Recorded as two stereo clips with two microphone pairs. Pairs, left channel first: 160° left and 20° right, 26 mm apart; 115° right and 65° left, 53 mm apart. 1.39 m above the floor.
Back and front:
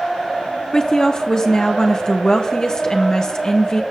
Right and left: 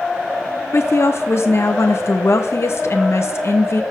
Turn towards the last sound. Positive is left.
turn(degrees=-140)